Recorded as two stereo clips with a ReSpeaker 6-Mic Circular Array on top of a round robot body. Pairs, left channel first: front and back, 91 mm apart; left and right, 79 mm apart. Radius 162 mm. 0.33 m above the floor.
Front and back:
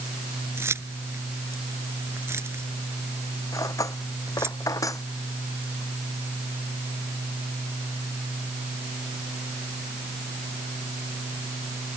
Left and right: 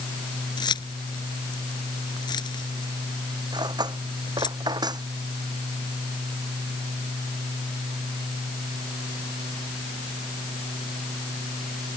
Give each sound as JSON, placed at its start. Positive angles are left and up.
{"t": 0.6, "sound": "keys jangling", "azimuth_deg": 115}
{"t": 3.5, "sound": "cutlery clinking", "azimuth_deg": -55}